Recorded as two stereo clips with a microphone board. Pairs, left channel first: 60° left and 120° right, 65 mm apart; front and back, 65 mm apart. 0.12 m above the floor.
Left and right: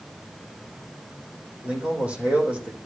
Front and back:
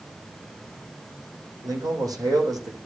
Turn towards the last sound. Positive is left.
turn(degrees=170)